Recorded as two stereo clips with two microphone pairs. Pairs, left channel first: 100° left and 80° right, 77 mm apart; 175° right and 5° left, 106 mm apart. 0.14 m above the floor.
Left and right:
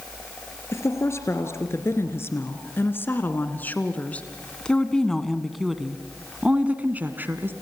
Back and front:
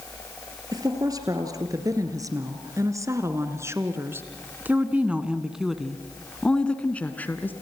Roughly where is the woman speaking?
Ahead left.